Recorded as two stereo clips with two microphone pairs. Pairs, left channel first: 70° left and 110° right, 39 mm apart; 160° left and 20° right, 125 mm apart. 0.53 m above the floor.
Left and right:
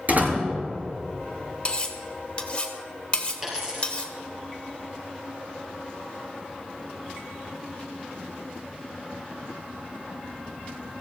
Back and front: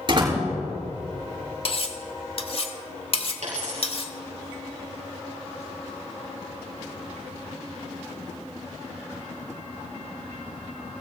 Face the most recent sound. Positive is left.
turn(degrees=-40)